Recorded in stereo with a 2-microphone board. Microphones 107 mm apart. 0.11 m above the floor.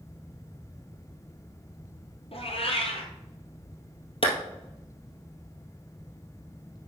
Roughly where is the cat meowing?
Left.